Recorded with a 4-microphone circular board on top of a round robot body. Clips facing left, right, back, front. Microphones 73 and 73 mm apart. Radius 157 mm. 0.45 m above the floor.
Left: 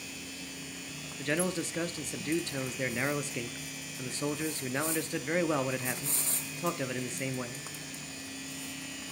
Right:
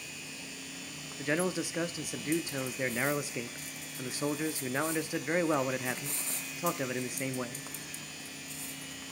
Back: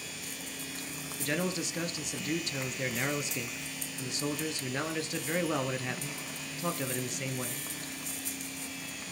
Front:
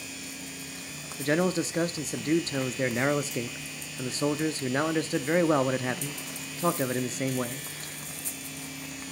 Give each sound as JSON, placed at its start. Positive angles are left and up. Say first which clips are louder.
{"t": 1.2, "sound": "a man speaking", "louder": "even, front 7 dB", "azimuth_deg": -20, "distance_m": 0.9}